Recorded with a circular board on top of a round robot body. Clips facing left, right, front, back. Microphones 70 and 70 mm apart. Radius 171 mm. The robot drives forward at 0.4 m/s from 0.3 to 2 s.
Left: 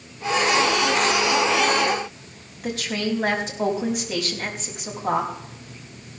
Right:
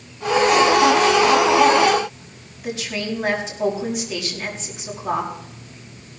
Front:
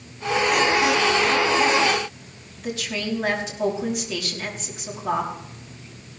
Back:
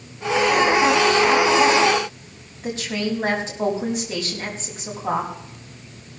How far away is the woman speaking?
About 5 m.